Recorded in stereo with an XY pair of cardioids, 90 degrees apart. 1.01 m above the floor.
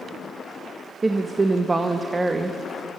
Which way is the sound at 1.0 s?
25° right.